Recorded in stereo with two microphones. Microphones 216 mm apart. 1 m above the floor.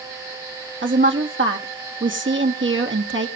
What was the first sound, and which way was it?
A woman speaking, 65° right (ahead or behind).